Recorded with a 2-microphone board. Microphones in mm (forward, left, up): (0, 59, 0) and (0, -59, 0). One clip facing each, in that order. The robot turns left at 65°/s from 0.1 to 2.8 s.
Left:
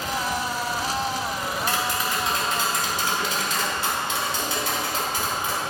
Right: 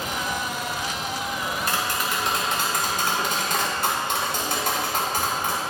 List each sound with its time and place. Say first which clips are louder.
1.4 s tapping: even; 35° right, 2 m; by 5.6 s 120° right, 2 m